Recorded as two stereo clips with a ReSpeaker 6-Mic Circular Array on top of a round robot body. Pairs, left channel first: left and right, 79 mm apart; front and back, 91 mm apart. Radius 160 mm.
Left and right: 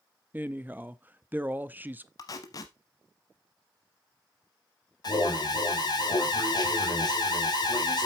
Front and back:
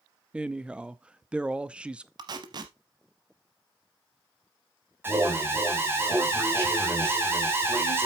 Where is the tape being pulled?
135° left, 0.5 m.